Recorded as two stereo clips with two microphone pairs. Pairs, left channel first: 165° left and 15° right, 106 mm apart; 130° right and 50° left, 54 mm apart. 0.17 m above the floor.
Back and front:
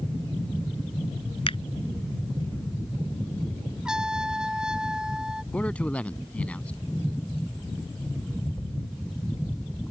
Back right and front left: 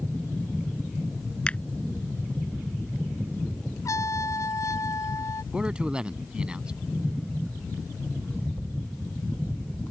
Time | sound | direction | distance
1.5 | a finger snap | 170° left | ?
3.9 | a trumpet | 100° right | ?
5.5 | a man speaking | 105° left | ?